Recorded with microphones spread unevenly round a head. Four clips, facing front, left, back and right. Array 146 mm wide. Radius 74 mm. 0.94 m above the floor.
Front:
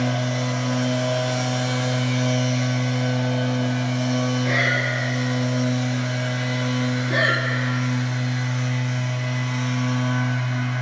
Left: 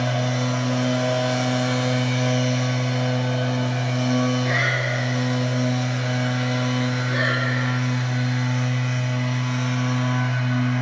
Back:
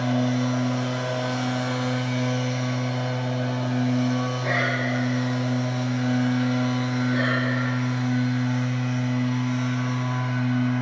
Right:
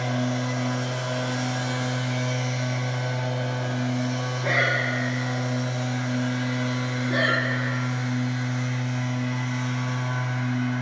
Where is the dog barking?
No dog barking in this recording.